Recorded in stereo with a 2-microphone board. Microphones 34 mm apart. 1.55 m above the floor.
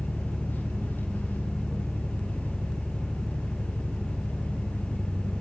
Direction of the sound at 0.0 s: 70° left (ahead or behind).